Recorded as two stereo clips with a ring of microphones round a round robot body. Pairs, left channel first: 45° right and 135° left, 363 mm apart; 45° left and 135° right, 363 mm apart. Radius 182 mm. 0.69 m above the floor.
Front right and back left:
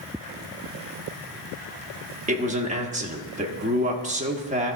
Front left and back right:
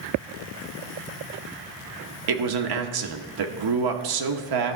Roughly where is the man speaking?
Behind right.